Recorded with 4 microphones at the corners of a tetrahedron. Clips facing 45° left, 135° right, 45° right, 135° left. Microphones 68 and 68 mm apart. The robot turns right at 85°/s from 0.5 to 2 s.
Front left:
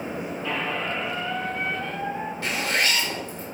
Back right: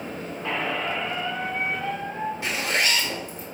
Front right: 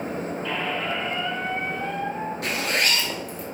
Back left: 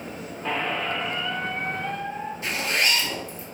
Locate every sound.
0.4 s a squeak: straight behind, 2 m; by 2.3 s 55° right, 2 m
2.4 s a zipper: 60° right, 2.5 m